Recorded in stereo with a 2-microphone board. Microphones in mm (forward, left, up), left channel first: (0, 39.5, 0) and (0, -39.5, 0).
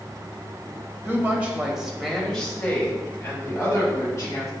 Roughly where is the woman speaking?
Right.